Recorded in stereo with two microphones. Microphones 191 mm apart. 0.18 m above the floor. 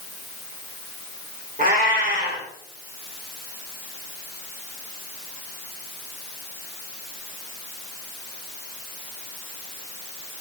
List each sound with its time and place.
1.6 s a cat meowing: 50° right (ahead or behind), 2.5 m